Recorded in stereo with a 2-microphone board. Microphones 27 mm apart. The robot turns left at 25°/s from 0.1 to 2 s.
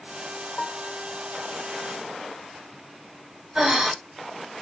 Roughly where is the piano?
Left.